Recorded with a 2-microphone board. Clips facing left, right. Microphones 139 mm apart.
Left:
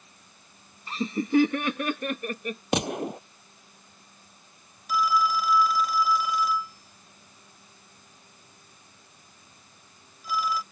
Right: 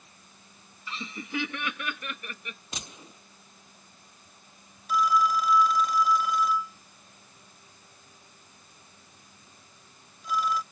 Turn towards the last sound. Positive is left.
turn(degrees=0)  # may be behind; listen again after turning